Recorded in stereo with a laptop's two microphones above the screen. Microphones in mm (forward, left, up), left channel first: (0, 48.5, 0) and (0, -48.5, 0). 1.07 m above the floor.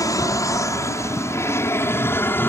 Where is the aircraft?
35° left (ahead or behind); by 2.5 s 25° left (ahead or behind).